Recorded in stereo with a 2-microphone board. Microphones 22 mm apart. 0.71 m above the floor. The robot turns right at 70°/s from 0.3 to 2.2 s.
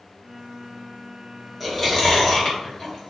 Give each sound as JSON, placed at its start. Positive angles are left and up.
{"t": 1.6, "sound": "chewing", "side_deg": -5, "distance_m": 0.9}